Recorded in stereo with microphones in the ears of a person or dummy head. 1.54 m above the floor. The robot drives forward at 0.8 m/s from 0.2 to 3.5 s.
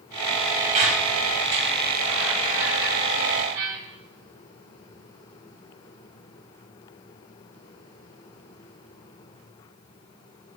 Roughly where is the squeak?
Right.